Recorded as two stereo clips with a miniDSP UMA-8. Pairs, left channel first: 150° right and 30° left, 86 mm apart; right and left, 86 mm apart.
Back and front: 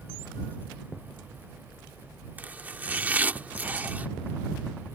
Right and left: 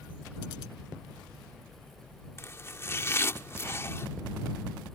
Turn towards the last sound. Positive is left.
turn(degrees=-35)